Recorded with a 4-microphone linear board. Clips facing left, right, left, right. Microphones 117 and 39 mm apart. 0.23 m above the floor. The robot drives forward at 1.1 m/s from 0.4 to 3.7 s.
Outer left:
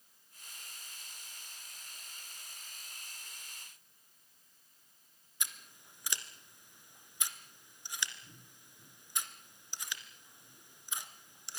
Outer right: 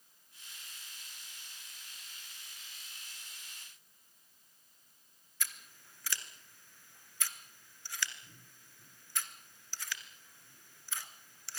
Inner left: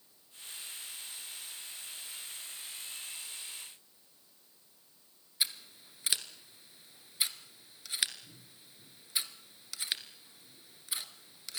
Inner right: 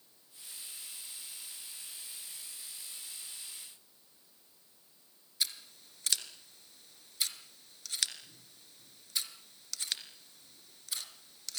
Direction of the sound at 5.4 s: 20° left (ahead or behind).